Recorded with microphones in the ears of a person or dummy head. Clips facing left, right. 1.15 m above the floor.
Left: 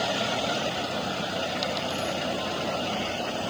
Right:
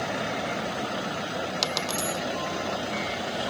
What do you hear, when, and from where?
1.6 s a dropped coin: 65° right (ahead or behind)